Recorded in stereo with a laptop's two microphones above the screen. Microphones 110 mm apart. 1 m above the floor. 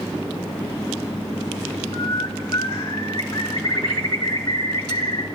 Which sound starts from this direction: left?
A bird, at 1.9 s.